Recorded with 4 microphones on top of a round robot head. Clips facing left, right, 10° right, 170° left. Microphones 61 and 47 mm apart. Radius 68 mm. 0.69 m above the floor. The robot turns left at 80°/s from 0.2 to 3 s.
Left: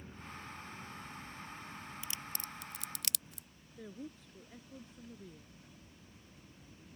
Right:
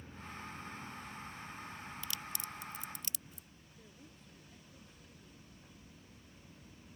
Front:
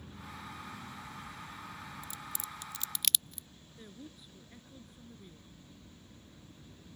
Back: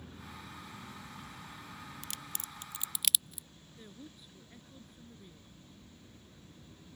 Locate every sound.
2.0 s a crack: 160° left; by 3.5 s 85° left
3.8 s a woman speaking: 75° left